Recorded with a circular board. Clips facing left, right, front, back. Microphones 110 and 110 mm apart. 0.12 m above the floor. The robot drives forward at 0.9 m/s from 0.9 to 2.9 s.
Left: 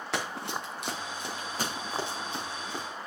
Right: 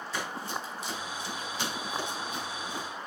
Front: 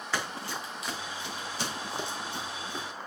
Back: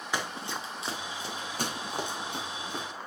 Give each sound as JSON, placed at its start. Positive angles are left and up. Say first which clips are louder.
{"t": 0.1, "sound": "running footsteps", "louder": "left 2 dB, even", "azimuth_deg": 105, "distance_m": 2.5}